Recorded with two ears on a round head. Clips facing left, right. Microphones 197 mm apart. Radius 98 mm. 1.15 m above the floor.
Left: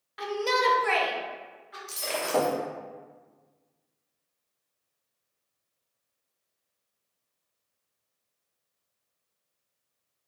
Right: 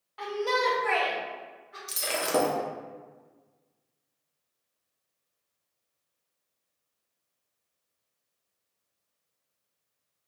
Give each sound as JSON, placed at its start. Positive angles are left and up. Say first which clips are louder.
{"t": 0.2, "sound": "a shout", "louder": "left 1 dB", "side_deg": 25, "distance_m": 0.6}
{"t": 1.9, "sound": "breaking glass", "louder": "even", "side_deg": -20, "distance_m": 0.6}